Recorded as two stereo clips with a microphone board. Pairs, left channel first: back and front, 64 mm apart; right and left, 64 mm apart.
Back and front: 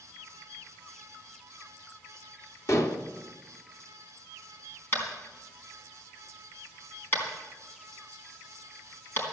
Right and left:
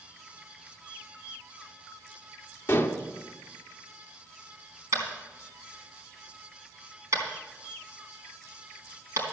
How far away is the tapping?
About 3.5 m.